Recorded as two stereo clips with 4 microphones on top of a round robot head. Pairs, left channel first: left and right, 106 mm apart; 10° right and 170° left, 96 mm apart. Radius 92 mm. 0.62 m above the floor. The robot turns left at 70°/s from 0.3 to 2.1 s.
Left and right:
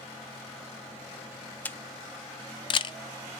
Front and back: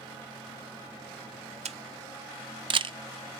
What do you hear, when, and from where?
1.6 s a camera shutter: 165° left, 0.5 m; by 3.0 s 135° left, 0.5 m